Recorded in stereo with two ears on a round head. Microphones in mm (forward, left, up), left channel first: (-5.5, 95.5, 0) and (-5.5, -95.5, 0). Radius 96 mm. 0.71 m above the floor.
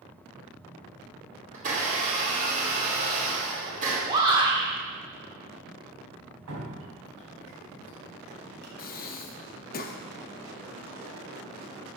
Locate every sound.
1.5 s a blender: 40° right (ahead or behind), 2.5 m
4.1 s a shout: 20° right (ahead or behind), 1.7 m
6.5 s dripping: 85° right, 2 m
8.8 s breathing: 45° left (ahead or behind), 0.5 m